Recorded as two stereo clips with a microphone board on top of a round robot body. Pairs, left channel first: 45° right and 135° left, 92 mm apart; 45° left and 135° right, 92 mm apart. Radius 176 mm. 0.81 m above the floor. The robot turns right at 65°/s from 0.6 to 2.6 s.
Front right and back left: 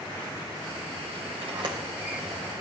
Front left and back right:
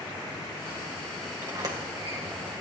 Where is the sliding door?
160° left, 3 m; by 2.5 s 130° right, 3 m.